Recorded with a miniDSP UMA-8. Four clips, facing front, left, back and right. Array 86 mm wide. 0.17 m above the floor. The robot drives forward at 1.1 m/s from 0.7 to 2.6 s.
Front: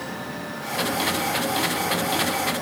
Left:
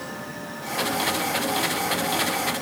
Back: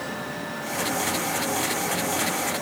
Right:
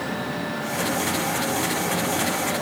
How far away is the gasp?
No gasp in this recording.